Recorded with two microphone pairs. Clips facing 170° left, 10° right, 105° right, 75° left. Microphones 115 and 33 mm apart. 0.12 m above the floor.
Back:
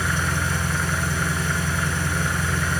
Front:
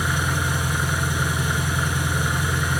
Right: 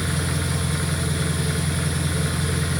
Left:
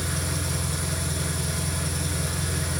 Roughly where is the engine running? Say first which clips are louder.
Front 1 dB, right 4 dB; right.